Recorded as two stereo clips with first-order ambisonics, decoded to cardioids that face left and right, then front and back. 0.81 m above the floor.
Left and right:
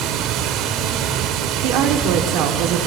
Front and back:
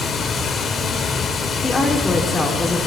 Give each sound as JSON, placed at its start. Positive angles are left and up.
{"t": 0.0, "sound": "running water", "azimuth_deg": -65, "distance_m": 1.0}
{"t": 1.6, "sound": "a woman speaking", "azimuth_deg": -75, "distance_m": 1.6}